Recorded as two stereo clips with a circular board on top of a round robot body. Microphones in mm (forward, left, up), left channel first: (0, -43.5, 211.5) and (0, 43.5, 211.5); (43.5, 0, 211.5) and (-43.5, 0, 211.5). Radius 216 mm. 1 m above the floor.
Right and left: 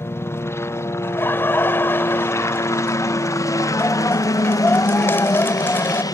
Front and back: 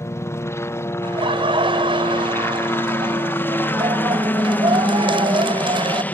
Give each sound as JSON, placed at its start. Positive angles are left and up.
{"t": 0.0, "sound": "a helicopter", "azimuth_deg": -40}
{"t": 1.0, "sound": "laughter", "azimuth_deg": -155}